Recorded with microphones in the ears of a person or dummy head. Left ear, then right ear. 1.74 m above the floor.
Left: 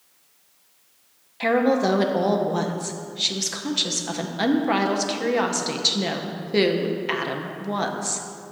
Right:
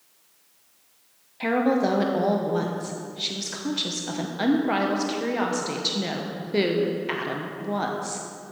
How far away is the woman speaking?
About 0.8 m.